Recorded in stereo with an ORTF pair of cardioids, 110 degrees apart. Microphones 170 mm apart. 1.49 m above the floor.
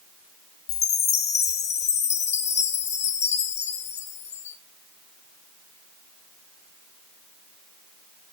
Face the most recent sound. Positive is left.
turn(degrees=40)